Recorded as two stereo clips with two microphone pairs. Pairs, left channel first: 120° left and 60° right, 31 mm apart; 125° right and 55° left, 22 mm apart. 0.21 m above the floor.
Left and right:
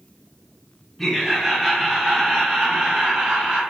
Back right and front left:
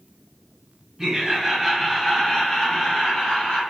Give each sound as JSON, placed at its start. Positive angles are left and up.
{"t": 1.0, "sound": "laughter", "azimuth_deg": 45, "distance_m": 1.1}